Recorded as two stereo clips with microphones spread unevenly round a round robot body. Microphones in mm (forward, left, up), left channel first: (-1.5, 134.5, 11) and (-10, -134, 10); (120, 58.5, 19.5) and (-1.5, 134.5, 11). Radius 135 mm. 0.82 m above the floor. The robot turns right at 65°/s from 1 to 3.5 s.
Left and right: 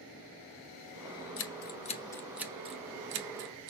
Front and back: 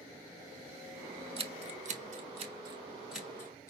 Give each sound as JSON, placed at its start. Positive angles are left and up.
{"t": 1.4, "sound": "scissors", "azimuth_deg": 115, "distance_m": 1.1}